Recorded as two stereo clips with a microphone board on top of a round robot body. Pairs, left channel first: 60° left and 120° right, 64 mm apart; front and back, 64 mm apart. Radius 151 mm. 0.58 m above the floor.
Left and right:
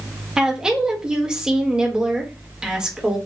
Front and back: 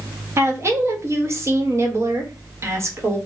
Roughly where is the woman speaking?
Behind.